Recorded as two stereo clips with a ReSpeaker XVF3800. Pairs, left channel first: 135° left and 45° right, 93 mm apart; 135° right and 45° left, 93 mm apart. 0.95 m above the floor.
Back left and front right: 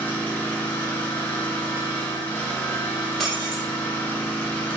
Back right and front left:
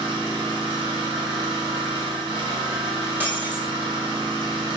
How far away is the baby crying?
No baby crying in this recording.